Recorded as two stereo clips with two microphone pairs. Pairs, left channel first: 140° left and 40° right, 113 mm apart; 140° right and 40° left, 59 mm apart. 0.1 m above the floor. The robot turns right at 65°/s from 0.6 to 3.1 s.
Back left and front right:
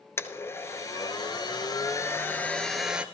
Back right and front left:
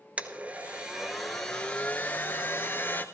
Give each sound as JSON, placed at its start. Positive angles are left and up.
{"t": 0.2, "sound": "a blender", "azimuth_deg": 90, "distance_m": 1.0}